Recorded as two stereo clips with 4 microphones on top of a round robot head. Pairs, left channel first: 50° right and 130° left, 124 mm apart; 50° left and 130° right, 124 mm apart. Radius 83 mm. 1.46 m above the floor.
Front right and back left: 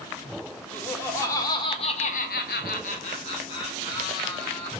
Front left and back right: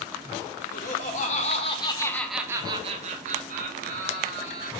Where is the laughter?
25° left, 1.2 m; by 4.7 s 120° right, 1.7 m.